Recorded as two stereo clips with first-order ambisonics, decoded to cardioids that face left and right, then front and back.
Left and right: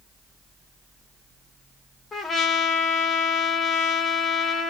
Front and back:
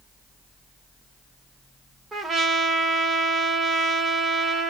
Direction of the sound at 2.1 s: 140° left.